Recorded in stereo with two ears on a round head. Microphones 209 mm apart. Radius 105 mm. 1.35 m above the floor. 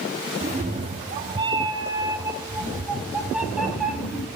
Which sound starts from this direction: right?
A cat meowing, at 0.4 s.